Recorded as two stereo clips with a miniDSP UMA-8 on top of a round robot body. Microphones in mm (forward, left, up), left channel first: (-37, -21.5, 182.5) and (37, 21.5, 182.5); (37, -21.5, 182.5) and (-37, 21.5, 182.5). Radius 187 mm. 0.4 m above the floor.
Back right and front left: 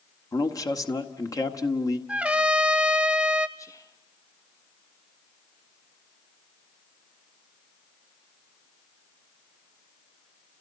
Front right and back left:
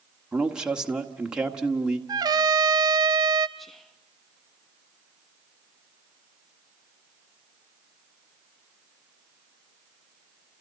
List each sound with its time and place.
0.3 s a man speaking: 135° right, 1.9 m
2.1 s a trumpet: 105° left, 0.5 m
3.6 s whispering: 120° right, 1.3 m